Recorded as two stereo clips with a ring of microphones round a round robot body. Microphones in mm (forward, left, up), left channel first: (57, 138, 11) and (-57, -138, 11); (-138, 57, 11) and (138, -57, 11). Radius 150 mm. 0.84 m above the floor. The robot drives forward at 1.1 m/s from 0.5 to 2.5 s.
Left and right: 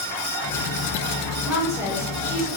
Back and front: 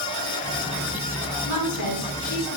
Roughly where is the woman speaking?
Behind.